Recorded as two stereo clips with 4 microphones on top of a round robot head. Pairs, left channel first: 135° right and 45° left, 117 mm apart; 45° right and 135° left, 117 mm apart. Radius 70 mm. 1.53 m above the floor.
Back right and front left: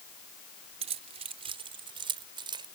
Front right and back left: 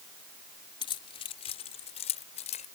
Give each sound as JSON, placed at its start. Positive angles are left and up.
{"t": 0.8, "sound": "keys jangling", "azimuth_deg": 5}